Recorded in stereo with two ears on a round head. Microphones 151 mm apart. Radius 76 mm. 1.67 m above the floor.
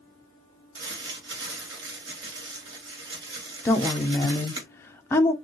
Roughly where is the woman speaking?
Centre.